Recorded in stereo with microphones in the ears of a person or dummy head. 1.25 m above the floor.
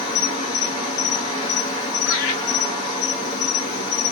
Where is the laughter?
75° left (ahead or behind), 1.6 m.